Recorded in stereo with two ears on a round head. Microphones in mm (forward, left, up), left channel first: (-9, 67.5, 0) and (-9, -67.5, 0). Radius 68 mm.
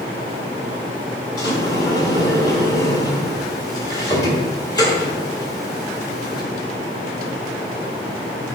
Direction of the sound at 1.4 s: 25° left (ahead or behind).